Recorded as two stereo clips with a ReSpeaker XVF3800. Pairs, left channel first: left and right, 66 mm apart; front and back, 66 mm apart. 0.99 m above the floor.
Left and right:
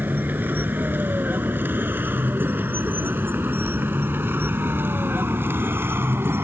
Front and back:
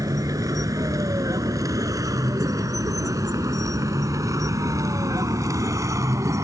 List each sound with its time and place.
0.0 s a vehicle: 150° right; by 6.4 s 140° right